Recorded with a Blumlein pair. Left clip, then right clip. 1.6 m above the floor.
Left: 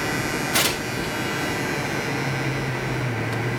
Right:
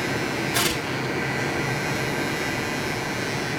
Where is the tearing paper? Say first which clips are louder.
Left 2 dB; 30° left, 5 m.